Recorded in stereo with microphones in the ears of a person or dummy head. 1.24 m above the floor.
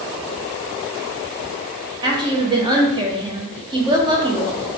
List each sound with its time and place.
2.0 s a woman speaking: 15° right (ahead or behind), 0.9 m